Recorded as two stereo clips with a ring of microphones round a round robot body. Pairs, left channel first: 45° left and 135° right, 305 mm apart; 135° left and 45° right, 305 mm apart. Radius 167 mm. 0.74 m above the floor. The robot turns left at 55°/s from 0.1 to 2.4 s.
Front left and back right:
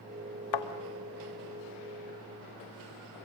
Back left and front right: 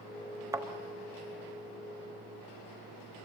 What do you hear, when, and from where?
0.5 s a thud: 35° left, 1.3 m; by 0.7 s 30° left, 1.3 m